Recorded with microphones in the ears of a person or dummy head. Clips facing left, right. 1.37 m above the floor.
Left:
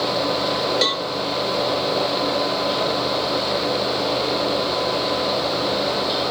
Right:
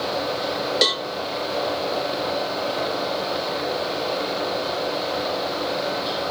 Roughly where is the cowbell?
Centre.